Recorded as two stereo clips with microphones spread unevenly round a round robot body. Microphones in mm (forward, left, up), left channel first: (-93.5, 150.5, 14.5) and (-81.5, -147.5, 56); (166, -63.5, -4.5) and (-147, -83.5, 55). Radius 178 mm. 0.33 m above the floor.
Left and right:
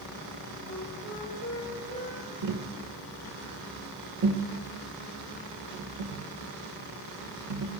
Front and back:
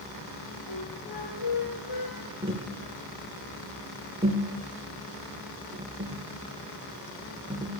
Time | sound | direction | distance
0.7 | a flute | 20° left | 4.5 m
2.4 | tapping | 100° right | 2.0 m